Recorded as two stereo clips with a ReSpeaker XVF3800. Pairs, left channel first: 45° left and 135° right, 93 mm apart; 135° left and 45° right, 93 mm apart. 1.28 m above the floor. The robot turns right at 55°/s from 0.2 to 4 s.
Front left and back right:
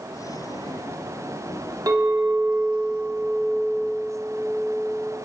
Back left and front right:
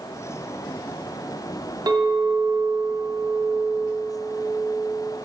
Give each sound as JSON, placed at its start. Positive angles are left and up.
{"t": 1.9, "sound": "a clink", "azimuth_deg": -85, "distance_m": 0.9}